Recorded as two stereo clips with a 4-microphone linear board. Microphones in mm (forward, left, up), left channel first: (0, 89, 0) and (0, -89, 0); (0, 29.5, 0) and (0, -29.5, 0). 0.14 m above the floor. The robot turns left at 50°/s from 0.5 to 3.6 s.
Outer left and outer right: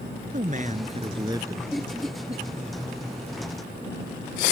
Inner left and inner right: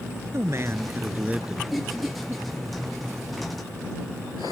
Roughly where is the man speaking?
Right.